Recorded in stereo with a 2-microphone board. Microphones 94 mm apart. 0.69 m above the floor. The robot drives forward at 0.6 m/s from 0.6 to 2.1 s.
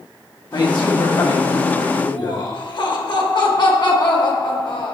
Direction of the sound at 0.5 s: 50° left (ahead or behind).